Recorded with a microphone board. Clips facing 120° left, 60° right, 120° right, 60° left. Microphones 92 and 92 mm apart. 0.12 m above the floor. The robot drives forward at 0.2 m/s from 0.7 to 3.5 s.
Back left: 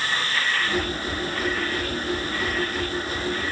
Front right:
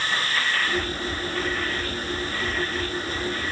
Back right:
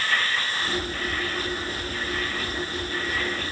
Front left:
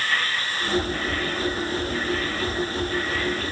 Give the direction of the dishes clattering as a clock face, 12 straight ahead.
No dishes clattering in this recording.